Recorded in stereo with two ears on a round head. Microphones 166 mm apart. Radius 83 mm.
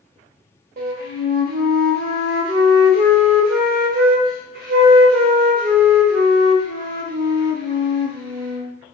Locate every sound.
0.8 s a flute: 45° right (ahead or behind), 0.9 m